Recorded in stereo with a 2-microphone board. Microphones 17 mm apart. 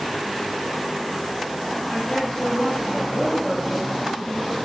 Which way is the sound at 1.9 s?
80° left.